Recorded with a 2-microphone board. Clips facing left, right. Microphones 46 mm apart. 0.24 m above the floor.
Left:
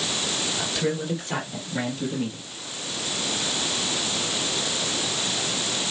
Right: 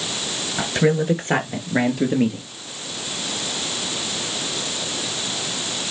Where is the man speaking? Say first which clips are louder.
Right 10 dB; 50° right (ahead or behind), 3.5 m; by 2.5 s 75° right (ahead or behind), 4.5 m.